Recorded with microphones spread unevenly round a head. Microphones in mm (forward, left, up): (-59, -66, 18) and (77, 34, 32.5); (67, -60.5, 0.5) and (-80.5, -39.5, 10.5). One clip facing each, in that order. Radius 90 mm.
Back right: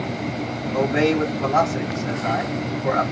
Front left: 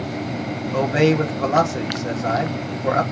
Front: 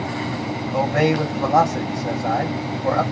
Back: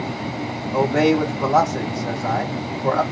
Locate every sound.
0.7 s a man speaking: 85° left, 1.2 m